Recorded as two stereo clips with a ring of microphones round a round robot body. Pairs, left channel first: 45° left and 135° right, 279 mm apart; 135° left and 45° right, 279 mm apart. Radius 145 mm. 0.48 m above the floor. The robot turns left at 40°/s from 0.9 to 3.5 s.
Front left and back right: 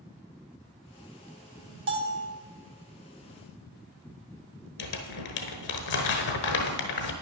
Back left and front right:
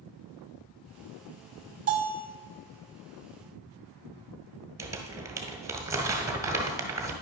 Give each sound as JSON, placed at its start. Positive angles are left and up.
{"t": 1.9, "sound": "a bell", "azimuth_deg": -100, "distance_m": 1.8}
{"t": 4.8, "sound": "crumpling", "azimuth_deg": 35, "distance_m": 1.3}